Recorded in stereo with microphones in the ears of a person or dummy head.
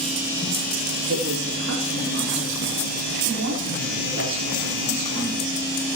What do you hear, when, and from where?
1.1 s a woman speaking: 85° right, 3.5 m; by 5.6 s 75° right (ahead or behind), 7 m